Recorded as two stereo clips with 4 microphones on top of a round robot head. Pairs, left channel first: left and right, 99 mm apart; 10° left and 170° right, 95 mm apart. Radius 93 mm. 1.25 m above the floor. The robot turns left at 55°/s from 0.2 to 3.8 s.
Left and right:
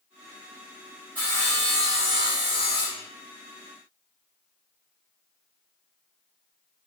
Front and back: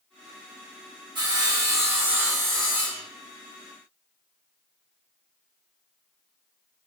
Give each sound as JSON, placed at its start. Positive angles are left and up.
{"t": 1.1, "sound": "sawing", "azimuth_deg": 170, "distance_m": 0.6}